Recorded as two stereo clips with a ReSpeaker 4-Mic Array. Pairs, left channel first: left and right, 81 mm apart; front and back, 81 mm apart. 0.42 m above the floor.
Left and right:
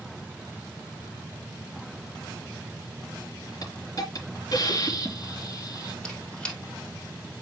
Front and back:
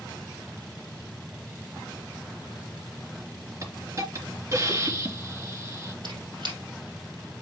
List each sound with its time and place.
3.6 s a hiss: 130° left, 3 m
6.0 s a squeak: 165° left, 3 m